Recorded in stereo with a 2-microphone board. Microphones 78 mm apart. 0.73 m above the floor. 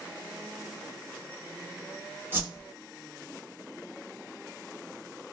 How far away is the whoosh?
About 1.0 m.